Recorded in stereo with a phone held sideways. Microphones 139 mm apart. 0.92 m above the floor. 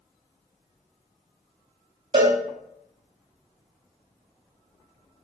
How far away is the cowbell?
About 0.6 m.